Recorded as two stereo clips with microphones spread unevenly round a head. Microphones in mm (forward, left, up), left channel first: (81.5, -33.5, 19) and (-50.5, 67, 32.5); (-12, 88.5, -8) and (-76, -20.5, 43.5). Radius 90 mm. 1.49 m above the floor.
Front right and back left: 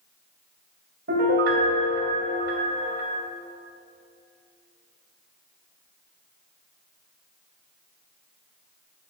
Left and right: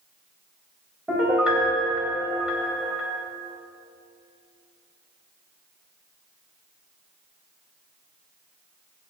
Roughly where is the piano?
Behind.